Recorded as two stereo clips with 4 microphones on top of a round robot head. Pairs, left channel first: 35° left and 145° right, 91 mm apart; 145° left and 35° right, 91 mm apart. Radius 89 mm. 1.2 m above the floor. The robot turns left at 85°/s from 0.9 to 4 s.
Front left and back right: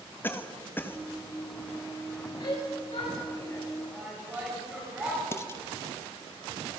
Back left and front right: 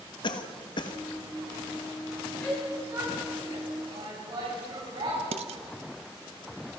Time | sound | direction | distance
0.2 | a cough | 105° left | 1.7 m
2.4 | a shout | 65° left | 9.5 m
5.3 | dishes clattering | 25° right | 1.0 m